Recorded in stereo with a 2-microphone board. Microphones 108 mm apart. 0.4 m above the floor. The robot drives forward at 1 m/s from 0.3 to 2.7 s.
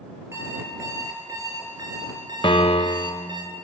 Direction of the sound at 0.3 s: 25° right (ahead or behind).